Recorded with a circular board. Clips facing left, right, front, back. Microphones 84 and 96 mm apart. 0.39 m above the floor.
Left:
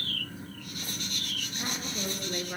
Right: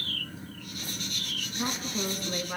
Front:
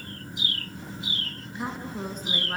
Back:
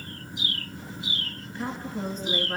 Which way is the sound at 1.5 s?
75° right.